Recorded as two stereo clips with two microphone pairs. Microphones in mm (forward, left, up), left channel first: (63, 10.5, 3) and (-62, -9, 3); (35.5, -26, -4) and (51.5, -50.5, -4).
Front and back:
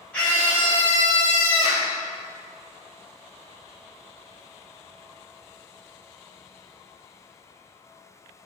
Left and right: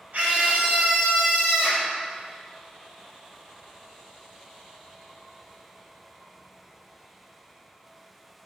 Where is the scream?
70° right, 1.9 m; by 1.9 s 10° left, 1.7 m.